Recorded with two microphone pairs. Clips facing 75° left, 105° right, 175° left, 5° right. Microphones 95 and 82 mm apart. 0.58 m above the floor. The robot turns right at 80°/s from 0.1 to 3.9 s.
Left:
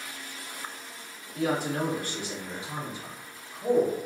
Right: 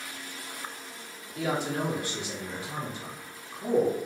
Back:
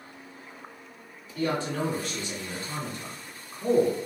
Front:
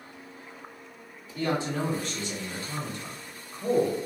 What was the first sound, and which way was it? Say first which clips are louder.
A man speaking: left 2 dB, even; 30° left.